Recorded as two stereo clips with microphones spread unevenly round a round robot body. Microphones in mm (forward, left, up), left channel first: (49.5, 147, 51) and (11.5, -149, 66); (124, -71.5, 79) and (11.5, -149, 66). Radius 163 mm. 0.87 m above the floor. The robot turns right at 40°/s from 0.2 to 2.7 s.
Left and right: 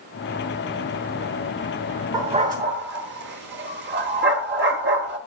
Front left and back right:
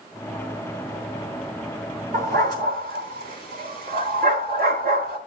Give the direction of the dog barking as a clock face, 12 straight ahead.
6 o'clock.